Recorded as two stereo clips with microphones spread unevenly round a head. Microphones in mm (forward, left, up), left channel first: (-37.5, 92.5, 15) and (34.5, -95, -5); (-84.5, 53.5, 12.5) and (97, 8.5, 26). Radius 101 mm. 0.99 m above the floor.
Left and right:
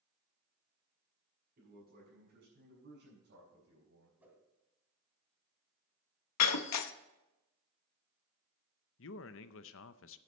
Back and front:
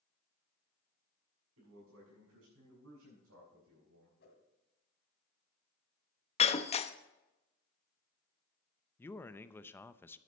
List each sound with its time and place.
1.6 s a man speaking: 20° right, 6 m; by 4.1 s 40° right, 4.5 m
4.2 s a whoosh: 155° right, 2.5 m
6.4 s breaking glass: 110° left, 0.8 m
9.0 s a man speaking: 90° left, 0.7 m